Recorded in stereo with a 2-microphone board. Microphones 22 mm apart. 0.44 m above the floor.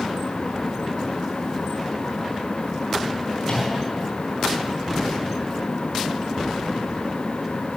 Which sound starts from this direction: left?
A microwave, at 3.4 s.